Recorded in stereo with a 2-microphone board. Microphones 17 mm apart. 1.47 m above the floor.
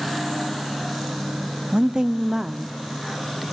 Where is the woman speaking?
55° right (ahead or behind), 0.5 m; by 3.4 s 5° right (ahead or behind), 1.1 m.